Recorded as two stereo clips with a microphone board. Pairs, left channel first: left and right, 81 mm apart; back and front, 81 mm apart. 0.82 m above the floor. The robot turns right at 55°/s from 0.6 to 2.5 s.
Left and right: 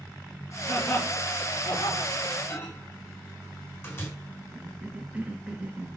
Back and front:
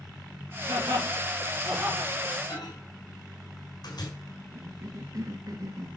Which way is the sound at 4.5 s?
20° right.